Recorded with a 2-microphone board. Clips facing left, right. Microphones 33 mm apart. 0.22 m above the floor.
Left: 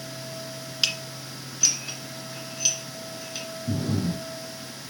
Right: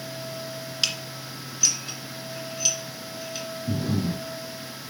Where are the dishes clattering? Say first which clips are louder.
Left 1 dB; 10° left (ahead or behind), 1.9 m.